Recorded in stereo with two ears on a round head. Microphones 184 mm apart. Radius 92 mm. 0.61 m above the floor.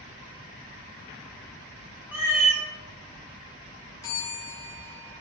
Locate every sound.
2.1 s a cat meowing: 5° right (ahead or behind), 1.5 m
4.0 s a bell: 20° left (ahead or behind), 1.5 m